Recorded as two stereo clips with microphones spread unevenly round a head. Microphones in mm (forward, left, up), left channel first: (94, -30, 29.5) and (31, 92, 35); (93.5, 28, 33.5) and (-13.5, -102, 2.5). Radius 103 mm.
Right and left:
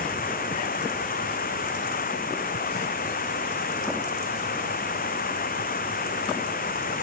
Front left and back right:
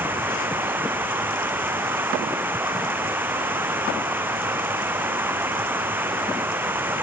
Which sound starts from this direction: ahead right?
Running water, at 0.0 s.